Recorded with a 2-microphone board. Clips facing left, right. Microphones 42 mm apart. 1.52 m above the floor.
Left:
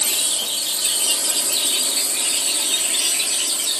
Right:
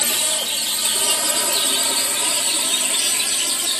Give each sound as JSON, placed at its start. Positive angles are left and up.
{"t": 0.0, "sound": "a drone", "side_deg": -75}